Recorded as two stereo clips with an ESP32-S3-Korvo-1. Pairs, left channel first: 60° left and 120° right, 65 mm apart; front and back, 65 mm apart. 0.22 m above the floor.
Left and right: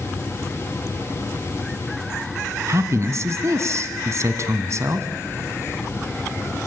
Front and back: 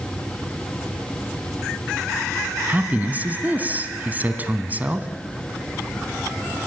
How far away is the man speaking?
About 1.5 m.